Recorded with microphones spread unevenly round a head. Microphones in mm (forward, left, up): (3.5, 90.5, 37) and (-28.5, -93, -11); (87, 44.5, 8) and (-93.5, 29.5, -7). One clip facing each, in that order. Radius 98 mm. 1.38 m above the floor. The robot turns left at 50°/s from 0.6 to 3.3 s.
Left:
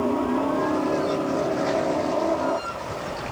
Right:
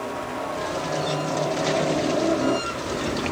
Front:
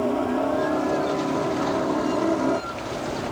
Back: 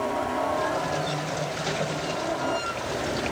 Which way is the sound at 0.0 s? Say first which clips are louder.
Left 8 dB, front 5 dB; 55° left.